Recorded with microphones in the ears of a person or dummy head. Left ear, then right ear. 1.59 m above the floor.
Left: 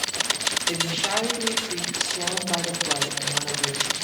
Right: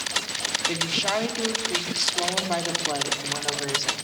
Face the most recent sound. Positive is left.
turn(degrees=-50)  # may be behind; listen again after turning